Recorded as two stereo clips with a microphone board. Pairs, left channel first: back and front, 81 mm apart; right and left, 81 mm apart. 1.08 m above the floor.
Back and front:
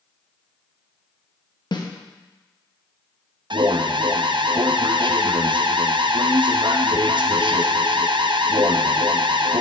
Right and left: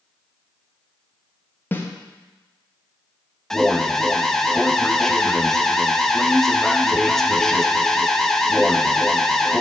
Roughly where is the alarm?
Ahead.